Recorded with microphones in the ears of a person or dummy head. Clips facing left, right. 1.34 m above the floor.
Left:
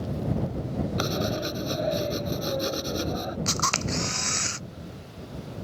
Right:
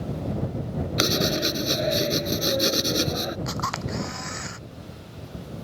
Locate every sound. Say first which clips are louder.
1.0 s writing: right 7 dB; 30° right (ahead or behind)
3.5 s a camera shutter: even; 45° left (ahead or behind)